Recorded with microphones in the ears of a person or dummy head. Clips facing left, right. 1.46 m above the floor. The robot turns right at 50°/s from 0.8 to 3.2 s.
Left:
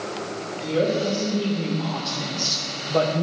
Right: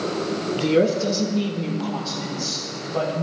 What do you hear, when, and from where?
0.6 s a woman speaking: 45° right, 1.2 m; by 3.2 s 75° left, 1.2 m